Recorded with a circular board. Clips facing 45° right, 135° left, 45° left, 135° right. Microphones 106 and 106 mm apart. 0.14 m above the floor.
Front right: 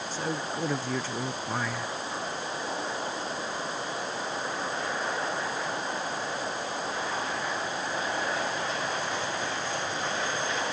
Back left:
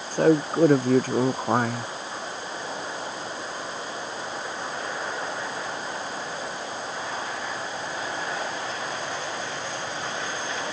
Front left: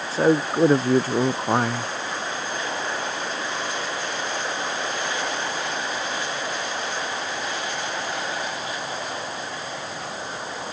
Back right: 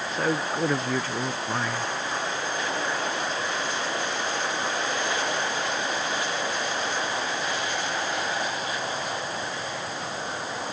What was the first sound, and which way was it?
A man speaking, 105° left.